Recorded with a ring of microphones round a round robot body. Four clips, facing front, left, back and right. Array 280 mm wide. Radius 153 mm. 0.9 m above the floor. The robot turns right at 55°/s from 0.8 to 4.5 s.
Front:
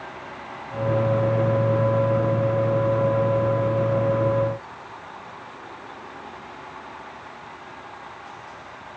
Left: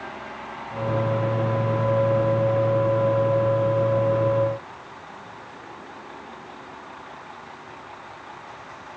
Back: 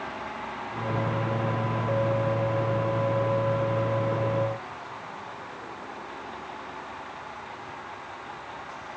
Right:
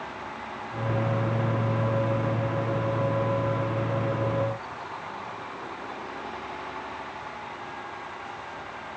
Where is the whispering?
I don't hear whispering.